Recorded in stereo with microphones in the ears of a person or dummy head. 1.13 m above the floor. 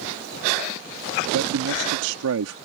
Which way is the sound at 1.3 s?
80° right.